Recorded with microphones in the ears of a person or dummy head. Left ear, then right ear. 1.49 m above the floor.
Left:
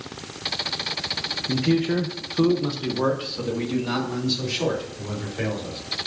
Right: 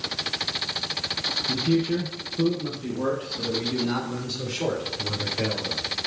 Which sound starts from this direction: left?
A man speaking, at 1.5 s.